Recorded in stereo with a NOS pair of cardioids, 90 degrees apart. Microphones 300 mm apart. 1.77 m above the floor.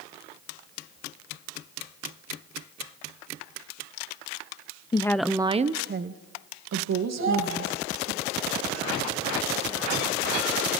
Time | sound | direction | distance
4.9 | a woman speaking | 15° left | 1.1 m
7.2 | a child speaking | 45° right | 7 m